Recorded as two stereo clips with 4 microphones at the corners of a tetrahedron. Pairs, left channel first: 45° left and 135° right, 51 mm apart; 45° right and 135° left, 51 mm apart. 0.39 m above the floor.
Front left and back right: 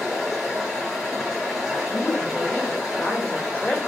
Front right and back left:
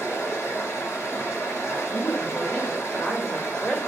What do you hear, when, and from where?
0.0 s running water: 50° right, 2.0 m
1.9 s a woman speaking: straight ahead, 1.2 m